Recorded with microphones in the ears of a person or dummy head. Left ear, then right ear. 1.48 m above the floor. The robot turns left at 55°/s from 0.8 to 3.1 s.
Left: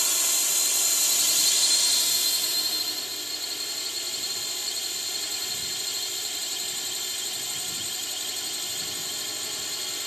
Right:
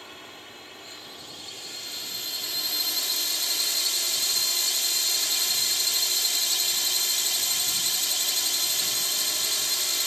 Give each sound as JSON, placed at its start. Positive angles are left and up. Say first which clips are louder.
{"t": 0.0, "sound": "a drone", "louder": "left 17 dB", "azimuth_deg": 95}